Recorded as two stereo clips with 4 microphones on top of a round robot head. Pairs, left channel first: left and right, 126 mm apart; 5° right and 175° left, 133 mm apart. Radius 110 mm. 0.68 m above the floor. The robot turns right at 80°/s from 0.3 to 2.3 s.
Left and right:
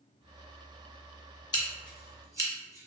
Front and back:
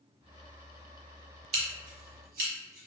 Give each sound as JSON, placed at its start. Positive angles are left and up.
{"t": 1.5, "sound": "scissors", "azimuth_deg": 145, "distance_m": 0.9}